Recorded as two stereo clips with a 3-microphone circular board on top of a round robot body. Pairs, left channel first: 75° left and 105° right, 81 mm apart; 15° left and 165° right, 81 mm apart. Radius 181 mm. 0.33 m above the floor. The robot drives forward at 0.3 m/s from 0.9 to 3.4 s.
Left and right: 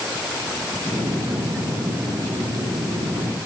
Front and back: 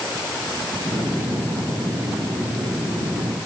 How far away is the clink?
No clink in this recording.